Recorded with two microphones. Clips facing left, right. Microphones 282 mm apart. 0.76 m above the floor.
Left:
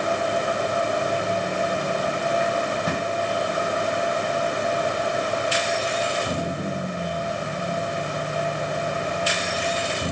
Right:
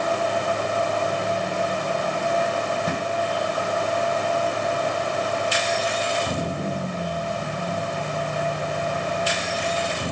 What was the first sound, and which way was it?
Only background noise.